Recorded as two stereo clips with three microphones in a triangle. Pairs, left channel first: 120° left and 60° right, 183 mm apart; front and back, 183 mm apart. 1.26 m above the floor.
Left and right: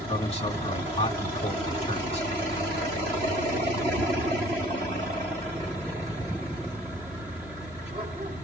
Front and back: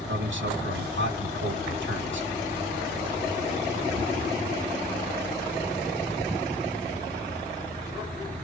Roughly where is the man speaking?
Behind.